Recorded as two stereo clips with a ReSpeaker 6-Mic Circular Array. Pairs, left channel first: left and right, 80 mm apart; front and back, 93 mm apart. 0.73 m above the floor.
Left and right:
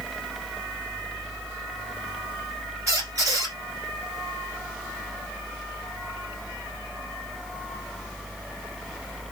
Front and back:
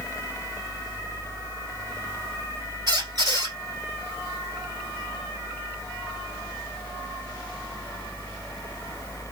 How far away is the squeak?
About 2 m.